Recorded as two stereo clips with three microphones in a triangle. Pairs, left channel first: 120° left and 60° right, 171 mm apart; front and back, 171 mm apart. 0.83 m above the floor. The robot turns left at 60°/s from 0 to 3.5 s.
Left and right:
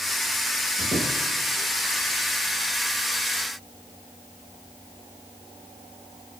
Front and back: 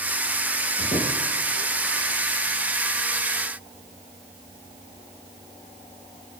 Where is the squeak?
10° right, 5 m; by 2.3 s 100° right, 5 m.